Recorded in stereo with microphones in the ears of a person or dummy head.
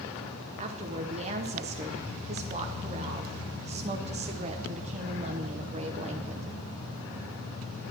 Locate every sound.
0.6 s a woman speaking: 30° right (ahead or behind), 0.9 m